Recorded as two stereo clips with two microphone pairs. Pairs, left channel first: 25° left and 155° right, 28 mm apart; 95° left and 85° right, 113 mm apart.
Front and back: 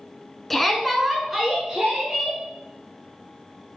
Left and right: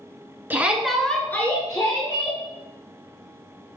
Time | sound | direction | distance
0.5 | a shout | 55° right | 1.3 m